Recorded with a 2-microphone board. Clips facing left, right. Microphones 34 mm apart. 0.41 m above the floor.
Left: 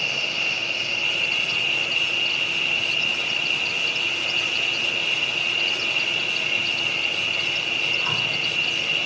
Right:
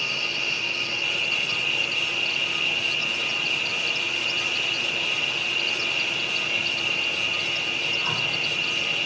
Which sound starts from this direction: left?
An insect, at 0.0 s.